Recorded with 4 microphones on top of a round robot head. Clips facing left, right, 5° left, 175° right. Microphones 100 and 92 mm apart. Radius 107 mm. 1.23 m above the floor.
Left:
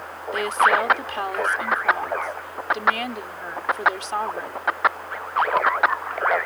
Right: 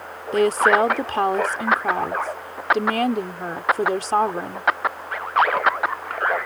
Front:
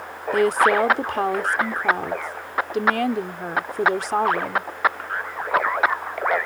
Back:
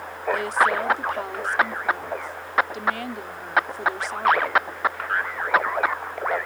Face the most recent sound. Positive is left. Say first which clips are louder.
# right 3 dB, front 5 dB
turn(degrees=-40)